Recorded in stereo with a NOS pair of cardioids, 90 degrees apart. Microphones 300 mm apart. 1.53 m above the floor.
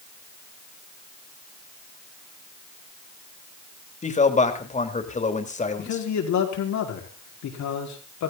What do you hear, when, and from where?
4.0 s a man speaking: 25° left, 3.5 m
5.8 s a man speaking: 65° left, 5 m